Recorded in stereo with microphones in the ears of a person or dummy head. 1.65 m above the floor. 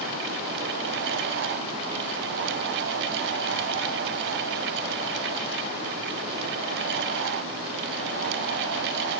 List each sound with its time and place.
Only background noise.